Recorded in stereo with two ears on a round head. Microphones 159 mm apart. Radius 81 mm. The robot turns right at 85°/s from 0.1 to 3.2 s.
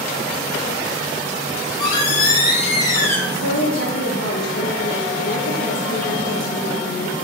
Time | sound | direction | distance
1.5 | a squeak | 30° left | 3 m
3.3 | a woman speaking | 90° left | 1.9 m